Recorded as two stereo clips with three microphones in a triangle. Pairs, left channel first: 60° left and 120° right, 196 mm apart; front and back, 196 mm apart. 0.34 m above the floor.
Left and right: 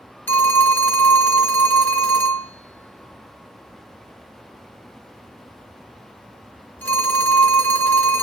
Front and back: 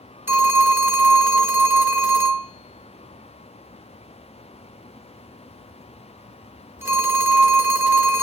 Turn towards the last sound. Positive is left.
turn(degrees=120)